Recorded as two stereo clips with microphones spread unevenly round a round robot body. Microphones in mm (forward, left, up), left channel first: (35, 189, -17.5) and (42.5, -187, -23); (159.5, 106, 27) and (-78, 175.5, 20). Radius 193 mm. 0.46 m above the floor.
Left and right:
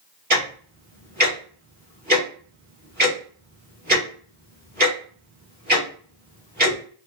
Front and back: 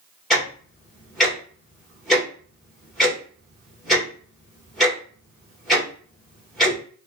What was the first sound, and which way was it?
Ticking, 110° right.